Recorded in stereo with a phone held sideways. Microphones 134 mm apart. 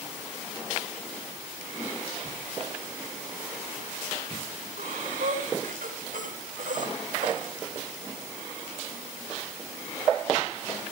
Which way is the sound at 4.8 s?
90° right.